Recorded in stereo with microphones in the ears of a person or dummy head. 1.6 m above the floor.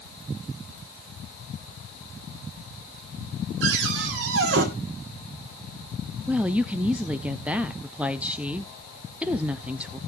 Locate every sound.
3.6 s a cupboard door: 70° right (ahead or behind), 2.5 m
6.3 s a woman speaking: 5° right (ahead or behind), 0.7 m